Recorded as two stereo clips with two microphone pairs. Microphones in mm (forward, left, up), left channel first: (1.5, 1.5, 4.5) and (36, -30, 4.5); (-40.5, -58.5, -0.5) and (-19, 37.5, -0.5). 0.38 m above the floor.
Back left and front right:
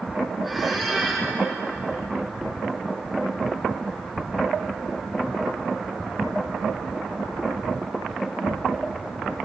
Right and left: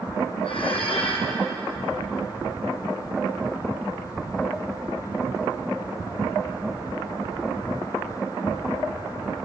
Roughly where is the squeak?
Behind right.